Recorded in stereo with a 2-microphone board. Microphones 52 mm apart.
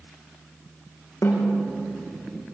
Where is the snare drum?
85° left, 7.5 m.